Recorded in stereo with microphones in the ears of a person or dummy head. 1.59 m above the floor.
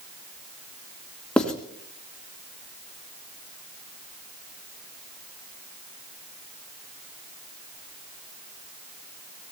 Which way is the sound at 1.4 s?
5° left (ahead or behind).